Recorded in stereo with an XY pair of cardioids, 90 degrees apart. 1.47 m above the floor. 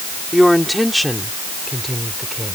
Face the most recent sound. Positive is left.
turn(degrees=10)